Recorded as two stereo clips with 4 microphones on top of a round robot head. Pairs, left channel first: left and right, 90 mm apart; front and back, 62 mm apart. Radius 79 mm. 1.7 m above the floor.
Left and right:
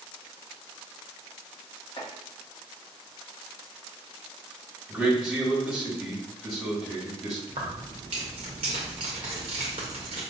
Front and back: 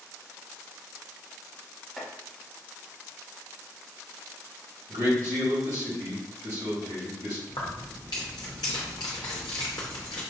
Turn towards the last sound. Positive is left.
turn(degrees=-50)